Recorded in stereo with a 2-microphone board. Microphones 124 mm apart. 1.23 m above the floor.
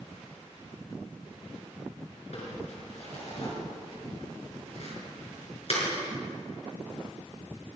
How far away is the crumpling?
About 6 m.